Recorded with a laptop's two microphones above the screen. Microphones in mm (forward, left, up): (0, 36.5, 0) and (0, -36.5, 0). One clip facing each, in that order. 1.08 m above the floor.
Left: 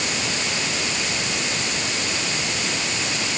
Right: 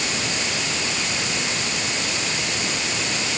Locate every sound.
Only background noise.